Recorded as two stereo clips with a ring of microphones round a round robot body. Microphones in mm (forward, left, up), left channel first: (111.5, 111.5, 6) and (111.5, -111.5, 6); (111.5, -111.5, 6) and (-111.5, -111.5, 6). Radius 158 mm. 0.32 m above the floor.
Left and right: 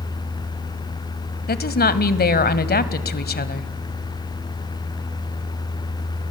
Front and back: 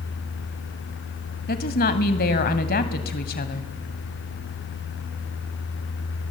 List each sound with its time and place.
1.5 s a woman speaking: 50° left, 1.7 m